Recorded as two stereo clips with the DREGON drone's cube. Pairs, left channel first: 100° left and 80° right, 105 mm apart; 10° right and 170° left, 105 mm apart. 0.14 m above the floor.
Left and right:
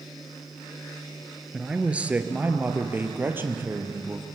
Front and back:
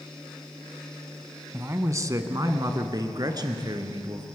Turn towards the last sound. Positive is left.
turn(degrees=-145)